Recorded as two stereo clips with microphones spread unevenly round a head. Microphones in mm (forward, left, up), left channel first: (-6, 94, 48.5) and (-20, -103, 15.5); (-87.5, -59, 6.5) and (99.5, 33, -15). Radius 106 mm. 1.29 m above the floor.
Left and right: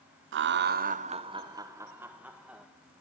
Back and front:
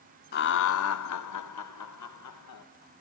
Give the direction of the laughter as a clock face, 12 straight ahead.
3 o'clock.